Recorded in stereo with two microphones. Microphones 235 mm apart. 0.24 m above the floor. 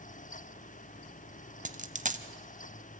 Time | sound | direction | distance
1.6 | a dropped coin | 35° right (ahead or behind) | 0.8 m